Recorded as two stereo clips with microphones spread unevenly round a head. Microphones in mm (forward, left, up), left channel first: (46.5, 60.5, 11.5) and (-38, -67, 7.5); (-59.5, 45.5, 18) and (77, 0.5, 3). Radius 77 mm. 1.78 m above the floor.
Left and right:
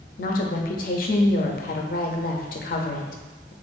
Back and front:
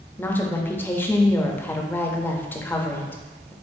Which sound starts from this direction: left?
A woman speaking, at 0.2 s.